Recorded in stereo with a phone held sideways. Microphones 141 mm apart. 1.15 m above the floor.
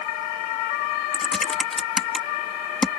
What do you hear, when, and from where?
1.1 s typing on a keyboard: 5° left (ahead or behind)